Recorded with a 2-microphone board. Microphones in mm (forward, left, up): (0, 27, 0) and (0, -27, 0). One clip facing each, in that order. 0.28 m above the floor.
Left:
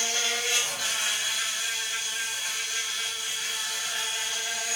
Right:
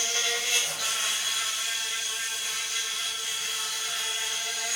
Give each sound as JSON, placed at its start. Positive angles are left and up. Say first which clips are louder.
{"t": 0.0, "sound": "an insect", "louder": "left 1 dB", "side_deg": 45, "distance_m": 6.5}